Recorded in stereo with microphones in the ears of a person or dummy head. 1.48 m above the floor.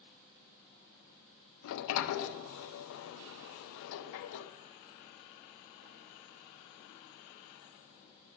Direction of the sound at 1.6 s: 75° left (ahead or behind).